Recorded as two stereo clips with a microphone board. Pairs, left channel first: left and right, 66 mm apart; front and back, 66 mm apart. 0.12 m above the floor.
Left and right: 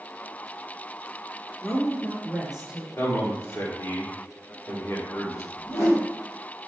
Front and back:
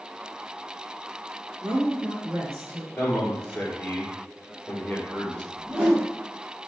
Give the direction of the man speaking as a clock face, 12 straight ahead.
10 o'clock.